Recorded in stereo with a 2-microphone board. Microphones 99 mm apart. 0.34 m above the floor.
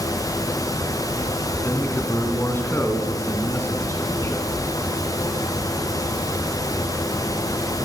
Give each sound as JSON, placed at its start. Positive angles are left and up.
{"t": 1.6, "sound": "a man speaking", "side_deg": 25, "distance_m": 3.0}